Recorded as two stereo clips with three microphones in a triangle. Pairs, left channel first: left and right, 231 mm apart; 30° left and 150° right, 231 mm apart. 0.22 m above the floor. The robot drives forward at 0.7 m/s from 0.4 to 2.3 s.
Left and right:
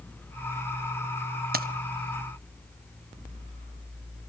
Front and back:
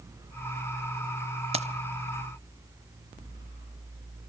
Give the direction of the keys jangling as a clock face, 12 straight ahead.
3 o'clock.